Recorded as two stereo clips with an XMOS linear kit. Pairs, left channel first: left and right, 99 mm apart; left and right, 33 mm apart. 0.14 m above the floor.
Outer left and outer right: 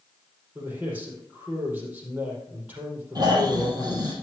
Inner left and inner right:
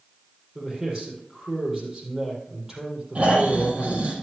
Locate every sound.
0.6 s a man speaking: 20° right (ahead or behind), 5 m
3.1 s snoring: 45° right (ahead or behind), 4 m